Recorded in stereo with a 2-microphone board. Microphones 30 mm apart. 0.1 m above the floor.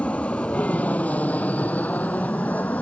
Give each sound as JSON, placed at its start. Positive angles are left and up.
{"t": 0.0, "sound": "an aircraft", "side_deg": 50}